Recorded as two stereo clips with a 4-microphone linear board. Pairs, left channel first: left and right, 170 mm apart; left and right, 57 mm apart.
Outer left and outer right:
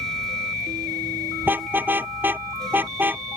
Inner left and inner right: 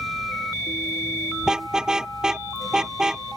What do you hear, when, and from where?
1.4 s a car horn: 10° right (ahead or behind)